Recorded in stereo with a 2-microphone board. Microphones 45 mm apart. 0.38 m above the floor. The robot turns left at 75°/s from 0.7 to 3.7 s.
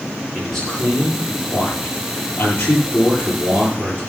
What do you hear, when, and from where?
0.3 s a man speaking: 175° left, 9 m; by 4.0 s 50° right, 9 m